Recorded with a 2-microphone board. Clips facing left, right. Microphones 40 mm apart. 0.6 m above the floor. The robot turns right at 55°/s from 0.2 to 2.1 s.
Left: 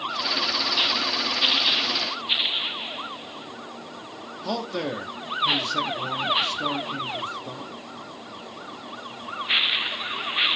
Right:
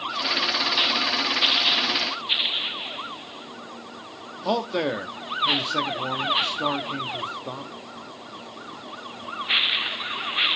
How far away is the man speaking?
About 0.8 m.